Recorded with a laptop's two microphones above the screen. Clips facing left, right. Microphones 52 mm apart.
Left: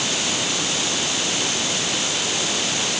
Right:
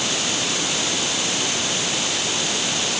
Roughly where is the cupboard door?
I don't hear a cupboard door.